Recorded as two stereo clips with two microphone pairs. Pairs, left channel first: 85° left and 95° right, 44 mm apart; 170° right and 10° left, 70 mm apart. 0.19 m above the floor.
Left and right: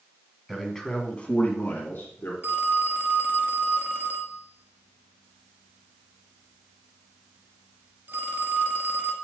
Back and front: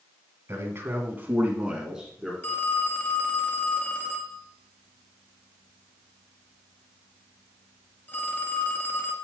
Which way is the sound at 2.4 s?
115° right.